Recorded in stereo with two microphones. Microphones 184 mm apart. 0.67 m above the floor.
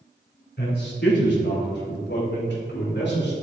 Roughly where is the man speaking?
Left.